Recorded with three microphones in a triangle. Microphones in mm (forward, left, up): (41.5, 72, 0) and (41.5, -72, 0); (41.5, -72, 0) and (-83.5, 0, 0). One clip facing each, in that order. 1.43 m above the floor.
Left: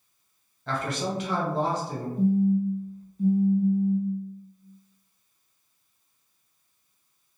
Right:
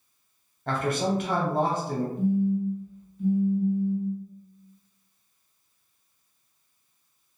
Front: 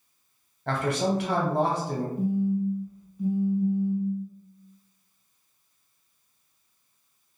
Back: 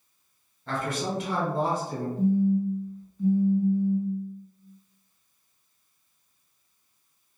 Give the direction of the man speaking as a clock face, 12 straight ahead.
2 o'clock.